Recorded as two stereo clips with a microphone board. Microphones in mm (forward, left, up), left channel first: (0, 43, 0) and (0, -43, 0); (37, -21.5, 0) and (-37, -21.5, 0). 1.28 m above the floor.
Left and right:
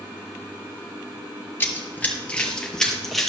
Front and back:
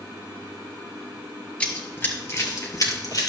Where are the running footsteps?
60° left, 1.4 m; by 3.3 s straight ahead, 2 m.